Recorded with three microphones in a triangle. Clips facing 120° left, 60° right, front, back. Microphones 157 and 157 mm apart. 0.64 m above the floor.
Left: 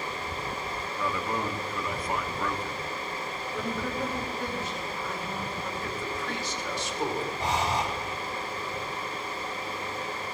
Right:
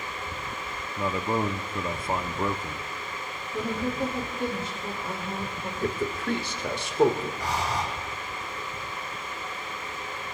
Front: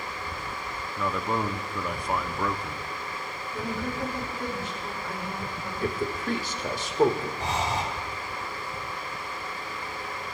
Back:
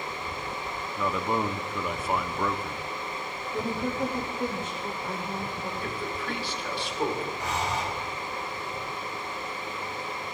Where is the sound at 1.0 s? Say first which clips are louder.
Right 4 dB, back 1 dB; 95° right, 0.6 m.